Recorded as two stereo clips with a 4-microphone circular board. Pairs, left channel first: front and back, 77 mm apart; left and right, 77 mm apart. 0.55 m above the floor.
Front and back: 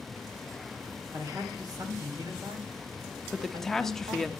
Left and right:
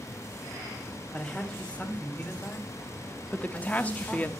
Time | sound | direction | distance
1.1 | a man speaking | 160° left | 2 m
3.3 | a woman speaking | 75° left | 0.7 m